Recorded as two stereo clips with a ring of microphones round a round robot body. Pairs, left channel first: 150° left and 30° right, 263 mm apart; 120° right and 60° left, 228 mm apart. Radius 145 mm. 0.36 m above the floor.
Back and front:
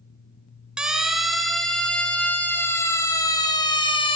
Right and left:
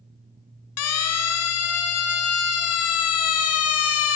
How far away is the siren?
About 5 m.